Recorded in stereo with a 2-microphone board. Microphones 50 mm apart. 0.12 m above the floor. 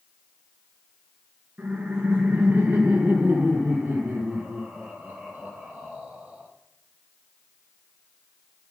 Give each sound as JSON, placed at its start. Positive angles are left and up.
{"t": 1.6, "sound": "laughter", "side_deg": -35, "distance_m": 2.0}